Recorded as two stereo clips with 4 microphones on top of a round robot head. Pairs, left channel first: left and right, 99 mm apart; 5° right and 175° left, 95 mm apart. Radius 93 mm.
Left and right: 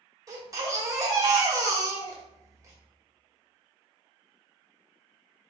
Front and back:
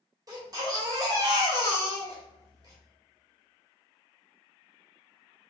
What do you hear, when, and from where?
0.3 s a baby crying: 140° right, 1.3 m